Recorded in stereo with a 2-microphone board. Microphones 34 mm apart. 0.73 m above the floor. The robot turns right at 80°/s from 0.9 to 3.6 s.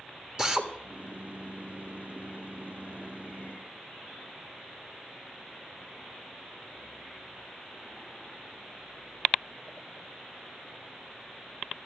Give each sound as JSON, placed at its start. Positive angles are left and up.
{"t": 0.4, "sound": "a drill", "side_deg": -20, "distance_m": 1.2}